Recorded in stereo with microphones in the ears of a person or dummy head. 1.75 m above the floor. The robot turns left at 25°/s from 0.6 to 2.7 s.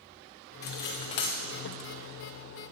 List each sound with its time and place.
0.6 s cutlery clinking: 15° left (ahead or behind), 0.9 m; by 1.4 s 20° left (ahead or behind), 0.9 m